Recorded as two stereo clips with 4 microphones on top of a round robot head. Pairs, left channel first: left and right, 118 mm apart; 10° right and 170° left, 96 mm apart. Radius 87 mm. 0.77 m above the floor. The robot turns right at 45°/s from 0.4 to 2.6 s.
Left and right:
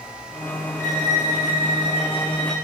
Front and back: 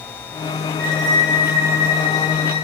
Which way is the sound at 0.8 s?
65° left.